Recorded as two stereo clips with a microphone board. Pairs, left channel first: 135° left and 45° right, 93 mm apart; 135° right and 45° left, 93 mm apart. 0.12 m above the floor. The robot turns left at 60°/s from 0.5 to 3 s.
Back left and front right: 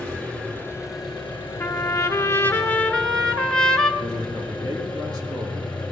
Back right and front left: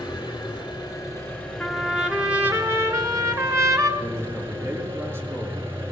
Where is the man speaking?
10° right, 2.5 m.